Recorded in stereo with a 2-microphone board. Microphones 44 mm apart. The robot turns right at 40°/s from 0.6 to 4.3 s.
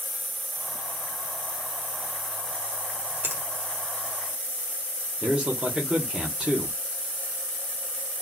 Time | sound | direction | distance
3.2 | a finger snap | 60° right (ahead or behind) | 1.6 m
5.2 | a man speaking | 25° right (ahead or behind) | 1.4 m